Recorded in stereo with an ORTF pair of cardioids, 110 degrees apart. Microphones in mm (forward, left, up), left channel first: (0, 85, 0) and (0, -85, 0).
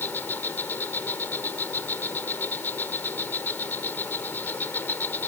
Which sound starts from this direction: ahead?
An insect, at 0.0 s.